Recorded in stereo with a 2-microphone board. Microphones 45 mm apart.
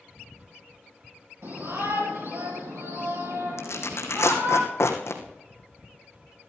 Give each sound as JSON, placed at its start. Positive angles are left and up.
{"t": 1.4, "sound": "a shout", "side_deg": -75, "distance_m": 5.5}
{"t": 3.6, "sound": "tearing paper", "side_deg": 85, "distance_m": 2.5}